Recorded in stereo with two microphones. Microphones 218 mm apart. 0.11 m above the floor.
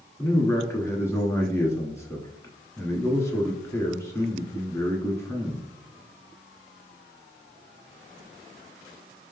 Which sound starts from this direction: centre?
A man speaking, at 0.2 s.